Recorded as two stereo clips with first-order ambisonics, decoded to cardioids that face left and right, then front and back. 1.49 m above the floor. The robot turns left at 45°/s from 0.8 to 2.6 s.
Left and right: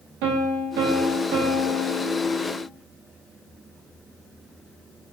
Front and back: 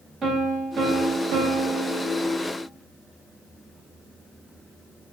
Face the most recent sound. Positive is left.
turn(degrees=170)